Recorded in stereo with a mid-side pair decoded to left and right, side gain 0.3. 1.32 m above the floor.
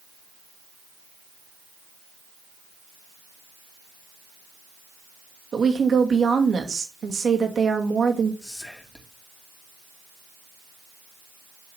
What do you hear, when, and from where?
5.5 s a woman speaking: 60° right, 2.5 m
8.4 s whispering: 15° left, 2.5 m